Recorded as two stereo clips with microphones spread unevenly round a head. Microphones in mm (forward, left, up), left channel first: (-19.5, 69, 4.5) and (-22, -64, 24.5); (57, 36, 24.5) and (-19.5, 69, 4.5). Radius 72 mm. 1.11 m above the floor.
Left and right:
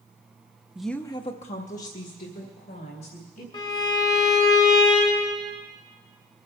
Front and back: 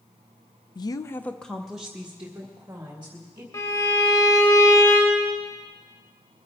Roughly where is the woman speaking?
Ahead.